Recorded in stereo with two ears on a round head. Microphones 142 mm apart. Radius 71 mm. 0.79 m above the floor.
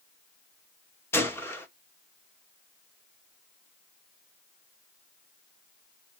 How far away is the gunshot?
About 1.1 m.